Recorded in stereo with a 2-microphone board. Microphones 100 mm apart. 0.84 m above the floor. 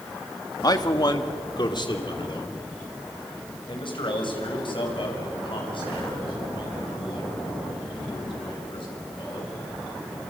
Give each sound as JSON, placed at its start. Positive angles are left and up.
{"t": 0.6, "sound": "a man speaking", "side_deg": 40, "distance_m": 1.5}